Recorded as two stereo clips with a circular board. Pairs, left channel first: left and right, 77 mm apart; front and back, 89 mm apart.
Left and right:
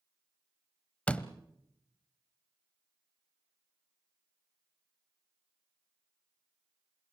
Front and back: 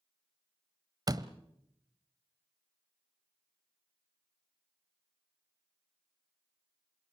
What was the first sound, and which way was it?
A door slam, 160° left.